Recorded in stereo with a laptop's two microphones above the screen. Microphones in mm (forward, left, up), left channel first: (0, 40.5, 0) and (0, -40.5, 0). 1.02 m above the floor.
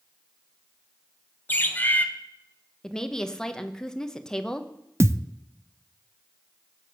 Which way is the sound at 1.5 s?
20° left (ahead or behind).